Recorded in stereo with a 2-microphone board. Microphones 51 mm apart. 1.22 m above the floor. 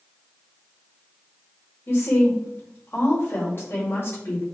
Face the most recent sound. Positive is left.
turn(degrees=45)  # may be behind; listen again after turning